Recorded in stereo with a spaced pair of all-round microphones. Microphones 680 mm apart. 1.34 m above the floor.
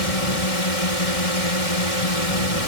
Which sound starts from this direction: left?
A drone, at 0.0 s.